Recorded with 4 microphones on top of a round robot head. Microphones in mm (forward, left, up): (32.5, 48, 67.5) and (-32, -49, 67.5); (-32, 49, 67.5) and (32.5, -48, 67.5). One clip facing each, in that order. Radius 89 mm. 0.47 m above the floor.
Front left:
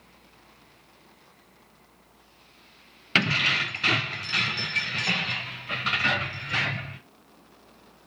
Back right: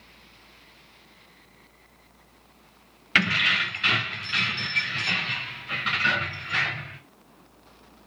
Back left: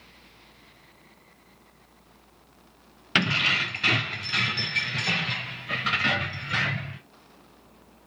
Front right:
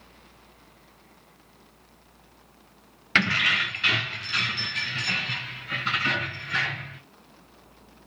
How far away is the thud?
No thud in this recording.